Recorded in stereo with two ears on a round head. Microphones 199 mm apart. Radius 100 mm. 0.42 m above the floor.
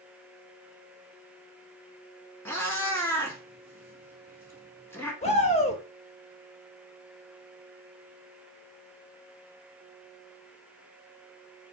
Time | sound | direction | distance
2.5 | a cat meowing | 10° left (ahead or behind) | 0.8 m
5.2 | a shout | 30° left (ahead or behind) | 0.8 m